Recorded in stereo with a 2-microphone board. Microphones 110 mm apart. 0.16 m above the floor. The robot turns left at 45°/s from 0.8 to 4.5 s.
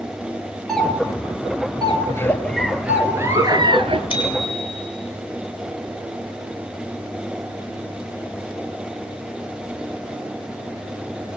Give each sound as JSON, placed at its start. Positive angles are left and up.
{"t": 0.7, "sound": "a doorbell", "side_deg": 5, "distance_m": 4.5}
{"t": 2.1, "sound": "a giggle", "azimuth_deg": 25, "distance_m": 1.8}
{"t": 4.1, "sound": "a bicycle bell", "side_deg": 45, "distance_m": 5.0}